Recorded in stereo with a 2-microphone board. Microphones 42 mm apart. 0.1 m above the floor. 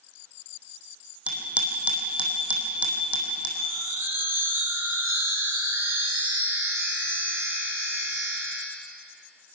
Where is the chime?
75° right (ahead or behind), 3.5 m.